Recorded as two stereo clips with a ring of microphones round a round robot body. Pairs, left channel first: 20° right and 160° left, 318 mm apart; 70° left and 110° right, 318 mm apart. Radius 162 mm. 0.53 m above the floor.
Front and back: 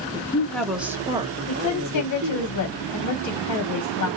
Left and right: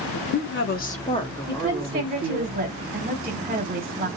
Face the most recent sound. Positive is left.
turn(degrees=-45)